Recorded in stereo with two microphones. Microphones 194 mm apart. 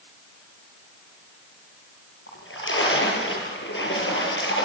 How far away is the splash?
About 7.5 m.